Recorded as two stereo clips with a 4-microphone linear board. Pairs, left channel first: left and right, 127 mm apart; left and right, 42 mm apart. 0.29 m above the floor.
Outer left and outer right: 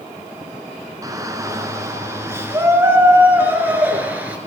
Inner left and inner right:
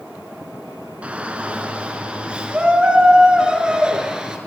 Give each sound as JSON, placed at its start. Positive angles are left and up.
{"t": 1.0, "sound": "a shout", "side_deg": -25, "distance_m": 4.5}